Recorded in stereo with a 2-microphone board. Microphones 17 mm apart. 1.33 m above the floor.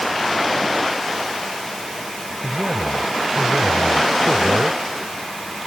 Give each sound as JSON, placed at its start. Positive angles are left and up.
{"t": 2.4, "sound": "a man speaking", "side_deg": -75}